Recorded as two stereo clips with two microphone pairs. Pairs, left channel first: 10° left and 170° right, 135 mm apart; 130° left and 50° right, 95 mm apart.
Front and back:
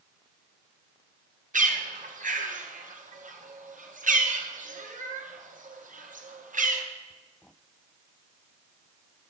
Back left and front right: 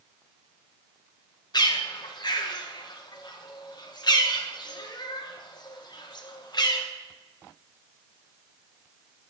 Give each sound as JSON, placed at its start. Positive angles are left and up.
{"t": 1.5, "sound": "a bird", "azimuth_deg": 175, "distance_m": 0.8}